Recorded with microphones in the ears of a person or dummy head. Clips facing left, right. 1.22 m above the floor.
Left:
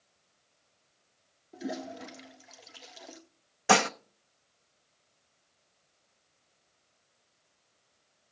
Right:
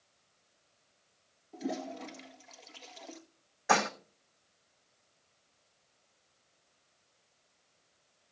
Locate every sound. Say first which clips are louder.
1.5 s a toilet flushing: even; 15° left (ahead or behind), 1.6 m
3.7 s dishes clattering: left 4 dB; 45° left (ahead or behind), 0.8 m